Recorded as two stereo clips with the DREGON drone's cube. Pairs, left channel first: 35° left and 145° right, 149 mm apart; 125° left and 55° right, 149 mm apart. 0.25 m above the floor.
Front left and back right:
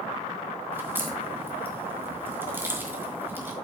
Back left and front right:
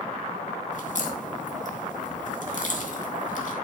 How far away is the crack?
About 3 m.